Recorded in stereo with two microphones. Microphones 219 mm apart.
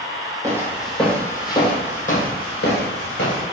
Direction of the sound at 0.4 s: 15° right (ahead or behind).